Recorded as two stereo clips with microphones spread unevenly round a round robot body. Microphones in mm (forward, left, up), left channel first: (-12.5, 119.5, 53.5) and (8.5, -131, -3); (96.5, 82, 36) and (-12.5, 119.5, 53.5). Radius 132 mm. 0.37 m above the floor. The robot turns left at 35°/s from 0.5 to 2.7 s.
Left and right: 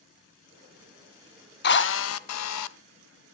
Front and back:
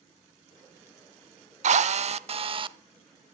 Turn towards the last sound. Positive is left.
turn(degrees=110)